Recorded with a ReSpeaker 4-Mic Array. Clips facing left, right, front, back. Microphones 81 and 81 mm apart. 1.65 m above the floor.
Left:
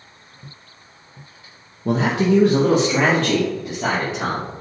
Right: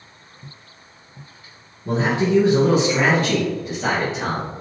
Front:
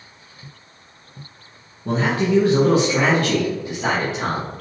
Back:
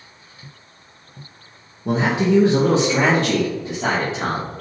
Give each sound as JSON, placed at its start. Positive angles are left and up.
{"t": 1.9, "sound": "a man speaking", "azimuth_deg": 100, "distance_m": 0.5}